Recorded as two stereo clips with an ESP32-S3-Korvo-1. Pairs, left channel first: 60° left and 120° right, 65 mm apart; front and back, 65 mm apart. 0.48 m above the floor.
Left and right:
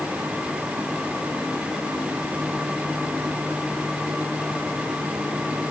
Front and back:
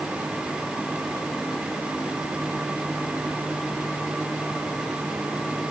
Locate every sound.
Only background noise.